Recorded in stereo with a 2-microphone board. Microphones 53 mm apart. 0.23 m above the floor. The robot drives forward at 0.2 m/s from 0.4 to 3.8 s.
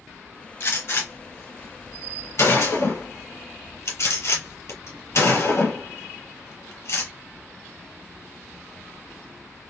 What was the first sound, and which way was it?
A gunshot, 50° left (ahead or behind).